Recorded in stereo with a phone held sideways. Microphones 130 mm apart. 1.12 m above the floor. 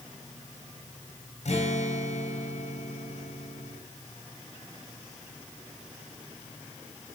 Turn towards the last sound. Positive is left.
turn(degrees=60)  # may be behind; listen again after turning